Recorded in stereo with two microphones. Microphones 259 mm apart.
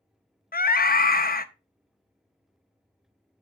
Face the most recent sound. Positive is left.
turn(degrees=35)  # may be behind; listen again after turning